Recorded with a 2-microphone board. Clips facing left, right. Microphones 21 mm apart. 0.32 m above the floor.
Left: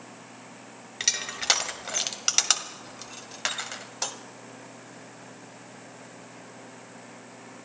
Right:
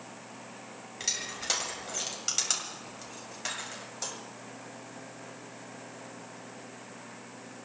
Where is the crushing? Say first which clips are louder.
Left 6 dB; 40° left (ahead or behind), 1.5 m.